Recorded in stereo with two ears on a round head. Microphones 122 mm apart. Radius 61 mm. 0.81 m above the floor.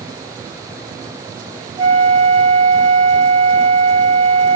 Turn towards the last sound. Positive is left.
turn(degrees=-30)  # may be behind; listen again after turning